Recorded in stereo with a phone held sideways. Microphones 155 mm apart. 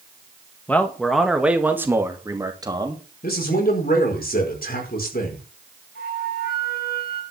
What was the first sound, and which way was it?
A man speaking, 10° left (ahead or behind).